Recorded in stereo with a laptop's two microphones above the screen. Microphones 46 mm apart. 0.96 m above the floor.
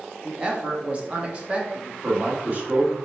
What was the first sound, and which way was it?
A woman speaking, 20° right (ahead or behind).